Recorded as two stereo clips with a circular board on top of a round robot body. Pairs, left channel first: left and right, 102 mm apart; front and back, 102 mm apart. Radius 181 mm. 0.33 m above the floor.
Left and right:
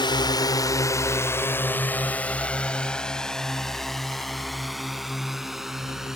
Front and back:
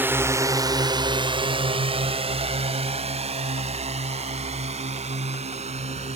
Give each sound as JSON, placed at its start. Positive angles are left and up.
{"t": 0.0, "sound": "a drone", "azimuth_deg": 115}